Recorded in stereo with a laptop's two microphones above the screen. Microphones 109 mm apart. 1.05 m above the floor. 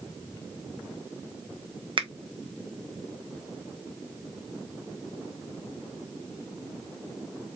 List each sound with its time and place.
2.0 s a finger snap: 50° right (ahead or behind), 0.9 m